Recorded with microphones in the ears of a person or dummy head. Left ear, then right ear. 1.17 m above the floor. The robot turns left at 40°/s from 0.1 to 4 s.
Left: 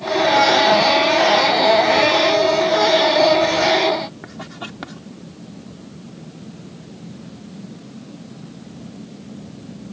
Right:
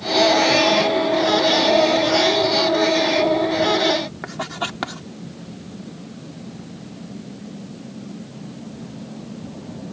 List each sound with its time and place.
4.2 s writing: 30° right (ahead or behind)